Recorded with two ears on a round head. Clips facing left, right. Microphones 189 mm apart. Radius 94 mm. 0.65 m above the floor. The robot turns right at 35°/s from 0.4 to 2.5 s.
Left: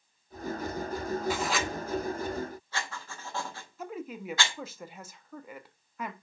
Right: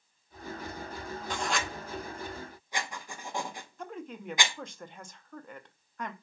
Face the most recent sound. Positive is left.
turn(degrees=5)  # may be behind; listen again after turning